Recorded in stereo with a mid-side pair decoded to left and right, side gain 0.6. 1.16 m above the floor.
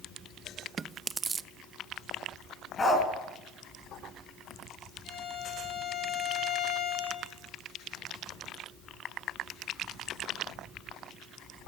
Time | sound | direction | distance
0.8 | chewing | 30° right | 0.6 m
2.8 | a dog barking | 30° left | 5 m
5.0 | a violin | 60° left | 9 m